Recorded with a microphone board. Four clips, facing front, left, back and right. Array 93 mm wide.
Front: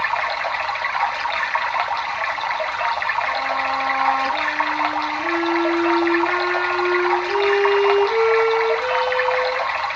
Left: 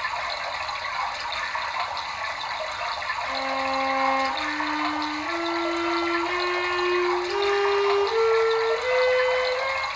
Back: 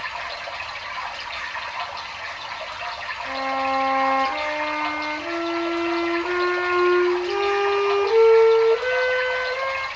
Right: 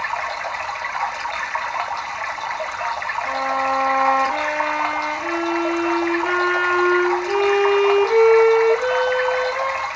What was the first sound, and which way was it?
Running water, 20° right.